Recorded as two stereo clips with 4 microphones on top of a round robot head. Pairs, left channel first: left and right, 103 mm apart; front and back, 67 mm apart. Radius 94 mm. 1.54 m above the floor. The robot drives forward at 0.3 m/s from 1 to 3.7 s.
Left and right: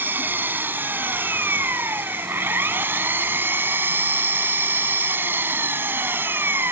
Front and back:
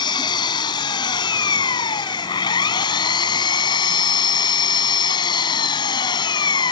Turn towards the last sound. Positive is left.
turn(degrees=-15)